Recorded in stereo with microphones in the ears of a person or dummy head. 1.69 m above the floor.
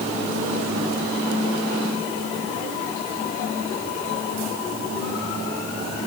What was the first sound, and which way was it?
Only background noise.